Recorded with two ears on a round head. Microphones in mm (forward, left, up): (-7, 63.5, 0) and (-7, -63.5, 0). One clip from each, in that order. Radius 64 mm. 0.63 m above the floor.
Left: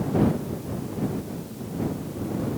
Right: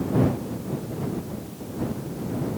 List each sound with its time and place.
Only background noise.